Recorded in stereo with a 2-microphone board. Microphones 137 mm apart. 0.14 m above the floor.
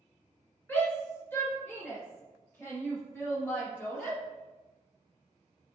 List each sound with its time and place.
0.7 s a shout: 15° left (ahead or behind), 2.0 m